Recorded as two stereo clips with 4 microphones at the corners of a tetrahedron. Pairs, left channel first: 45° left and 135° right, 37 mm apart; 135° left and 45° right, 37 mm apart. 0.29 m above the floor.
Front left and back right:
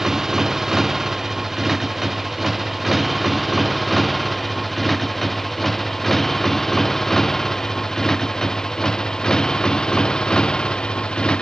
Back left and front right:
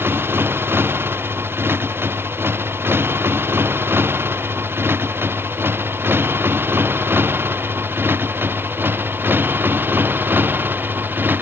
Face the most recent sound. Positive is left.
turn(degrees=-15)